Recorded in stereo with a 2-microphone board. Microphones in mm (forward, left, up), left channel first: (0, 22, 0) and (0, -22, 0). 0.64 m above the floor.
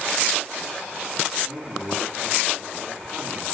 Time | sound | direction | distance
1.4 | a man speaking | 20° right (ahead or behind) | 6.5 m